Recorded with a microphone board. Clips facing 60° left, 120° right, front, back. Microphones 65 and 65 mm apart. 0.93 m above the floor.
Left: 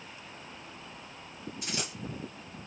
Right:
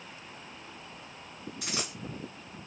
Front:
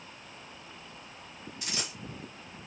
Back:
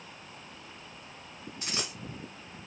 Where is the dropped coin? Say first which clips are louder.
Right 1 dB, back 2 dB; 125° right, 2 m.